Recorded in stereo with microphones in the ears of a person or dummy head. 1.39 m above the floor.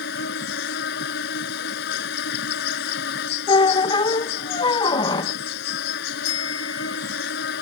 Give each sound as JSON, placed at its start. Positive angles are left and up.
{"t": 0.0, "sound": "an insect", "side_deg": 60}
{"t": 3.5, "sound": "a squeak", "side_deg": 35}
{"t": 6.2, "sound": "a bicycle bell", "side_deg": 90}